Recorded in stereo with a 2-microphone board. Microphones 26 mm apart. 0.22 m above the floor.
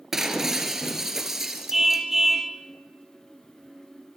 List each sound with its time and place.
0.1 s breaking glass: 15° right (ahead or behind), 2.5 m
1.7 s a car horn: 10° right (ahead or behind), 2.5 m